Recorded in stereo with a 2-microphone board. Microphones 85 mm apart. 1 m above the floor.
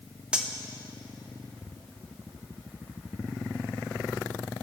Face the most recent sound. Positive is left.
turn(degrees=-10)  # may be behind; listen again after turning